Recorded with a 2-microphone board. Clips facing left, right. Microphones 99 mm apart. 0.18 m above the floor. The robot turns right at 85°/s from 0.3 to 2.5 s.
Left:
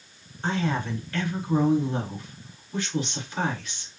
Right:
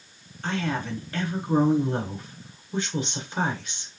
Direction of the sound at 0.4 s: 155° left.